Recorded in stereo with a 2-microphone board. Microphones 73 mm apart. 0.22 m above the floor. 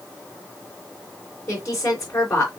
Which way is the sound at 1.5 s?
40° left (ahead or behind).